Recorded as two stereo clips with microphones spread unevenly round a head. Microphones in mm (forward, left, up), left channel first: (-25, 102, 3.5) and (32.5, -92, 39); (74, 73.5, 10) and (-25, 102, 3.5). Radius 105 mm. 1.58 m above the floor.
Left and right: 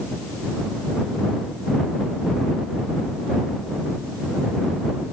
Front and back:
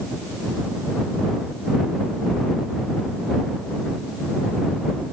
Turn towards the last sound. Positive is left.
No sound to turn to.